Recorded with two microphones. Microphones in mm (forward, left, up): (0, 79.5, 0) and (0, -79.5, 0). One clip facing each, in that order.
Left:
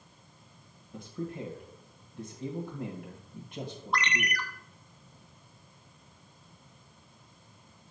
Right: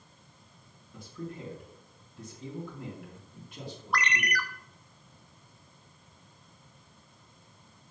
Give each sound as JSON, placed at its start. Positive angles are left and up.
{"t": 0.9, "sound": "a man speaking", "side_deg": 40, "distance_m": 1.6}
{"t": 3.9, "sound": "a ringtone", "side_deg": 25, "distance_m": 0.7}